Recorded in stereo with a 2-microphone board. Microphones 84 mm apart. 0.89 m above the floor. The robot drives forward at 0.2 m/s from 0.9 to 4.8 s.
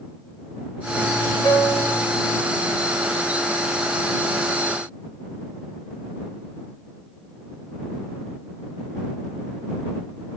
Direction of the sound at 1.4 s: 75° left (ahead or behind).